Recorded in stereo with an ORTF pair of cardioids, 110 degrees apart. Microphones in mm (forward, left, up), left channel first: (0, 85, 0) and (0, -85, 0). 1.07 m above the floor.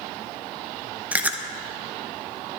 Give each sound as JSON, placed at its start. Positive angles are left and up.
{"t": 1.1, "sound": "chewing", "azimuth_deg": -10, "distance_m": 0.9}